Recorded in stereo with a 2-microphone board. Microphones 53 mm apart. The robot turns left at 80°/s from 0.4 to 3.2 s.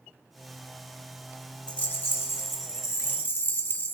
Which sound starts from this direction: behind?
A rattle, at 1.7 s.